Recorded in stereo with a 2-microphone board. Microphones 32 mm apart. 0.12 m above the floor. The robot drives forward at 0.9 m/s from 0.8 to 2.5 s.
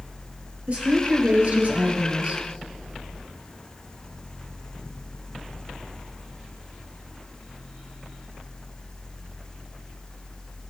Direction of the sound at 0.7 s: 50° right (ahead or behind).